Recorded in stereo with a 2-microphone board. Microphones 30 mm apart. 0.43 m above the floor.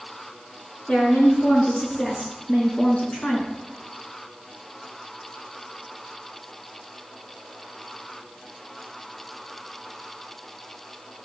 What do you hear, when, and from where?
0.9 s a woman speaking: 55° left (ahead or behind), 5.5 m; by 3.5 s 40° left (ahead or behind), 5 m